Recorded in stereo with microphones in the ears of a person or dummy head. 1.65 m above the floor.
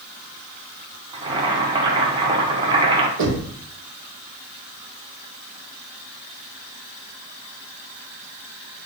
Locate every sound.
1.1 s boiling: 30° right (ahead or behind), 1.2 m
3.2 s knocking: 70° right (ahead or behind), 1.6 m